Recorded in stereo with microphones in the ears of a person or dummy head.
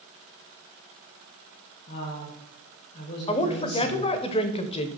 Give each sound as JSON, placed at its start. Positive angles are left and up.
{"t": 1.9, "sound": "a woman speaking", "side_deg": 45, "distance_m": 1.3}
{"t": 3.3, "sound": "a woman speaking", "side_deg": 30, "distance_m": 0.7}